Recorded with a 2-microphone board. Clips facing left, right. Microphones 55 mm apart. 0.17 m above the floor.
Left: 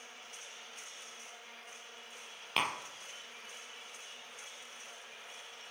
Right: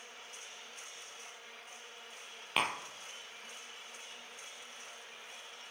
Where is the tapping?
5° right (ahead or behind), 1.2 m.